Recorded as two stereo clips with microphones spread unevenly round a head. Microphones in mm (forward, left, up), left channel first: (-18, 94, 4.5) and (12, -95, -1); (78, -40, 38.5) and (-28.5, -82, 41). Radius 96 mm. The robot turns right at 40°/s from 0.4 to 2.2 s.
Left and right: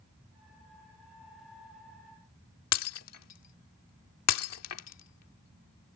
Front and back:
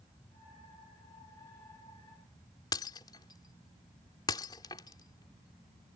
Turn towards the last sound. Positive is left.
turn(degrees=90)